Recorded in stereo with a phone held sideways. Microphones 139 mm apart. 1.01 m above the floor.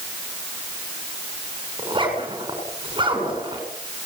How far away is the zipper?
About 7.5 m.